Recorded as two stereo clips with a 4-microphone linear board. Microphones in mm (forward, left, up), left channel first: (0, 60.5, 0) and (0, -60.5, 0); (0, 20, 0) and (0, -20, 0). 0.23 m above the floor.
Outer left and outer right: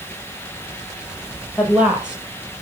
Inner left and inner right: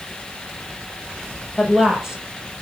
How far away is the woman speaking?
About 6.5 m.